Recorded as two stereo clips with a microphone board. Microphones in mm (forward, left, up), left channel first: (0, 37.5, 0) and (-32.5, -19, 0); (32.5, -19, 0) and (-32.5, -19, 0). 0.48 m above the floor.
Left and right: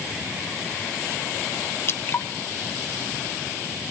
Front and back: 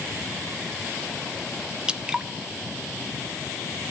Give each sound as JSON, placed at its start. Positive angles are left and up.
{"t": 1.9, "sound": "dripping", "azimuth_deg": 105, "distance_m": 0.7}